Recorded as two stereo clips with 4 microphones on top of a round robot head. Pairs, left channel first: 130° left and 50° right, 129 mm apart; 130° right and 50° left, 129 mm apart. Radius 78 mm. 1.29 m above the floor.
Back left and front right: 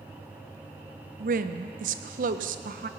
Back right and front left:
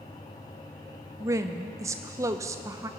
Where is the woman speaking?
20° right, 0.6 m.